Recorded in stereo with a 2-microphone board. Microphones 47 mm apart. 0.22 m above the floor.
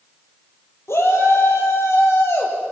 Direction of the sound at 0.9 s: 80° left.